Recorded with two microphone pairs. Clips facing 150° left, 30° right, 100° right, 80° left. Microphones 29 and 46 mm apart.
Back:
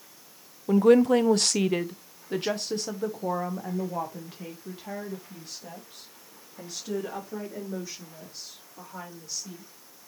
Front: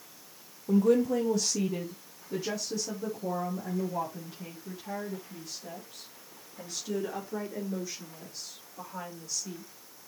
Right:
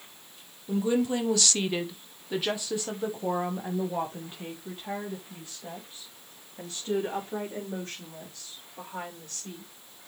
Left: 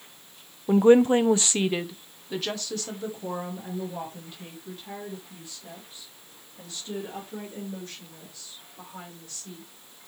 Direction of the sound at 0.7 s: 105° left.